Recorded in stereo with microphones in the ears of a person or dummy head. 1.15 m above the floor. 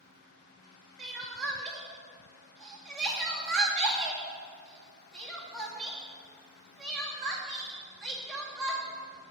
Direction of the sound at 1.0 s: 5° right (ahead or behind).